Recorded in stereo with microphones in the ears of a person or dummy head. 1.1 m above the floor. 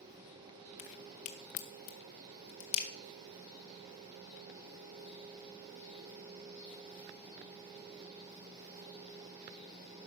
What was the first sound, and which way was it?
A crack, 35° left (ahead or behind).